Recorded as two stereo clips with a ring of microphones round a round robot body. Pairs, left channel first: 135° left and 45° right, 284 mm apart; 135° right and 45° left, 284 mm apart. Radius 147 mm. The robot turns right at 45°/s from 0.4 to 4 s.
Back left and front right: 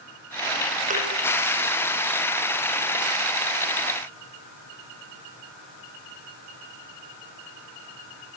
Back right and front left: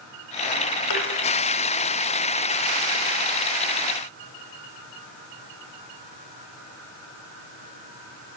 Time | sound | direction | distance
0.9 | a thud | 110° right | 8.5 m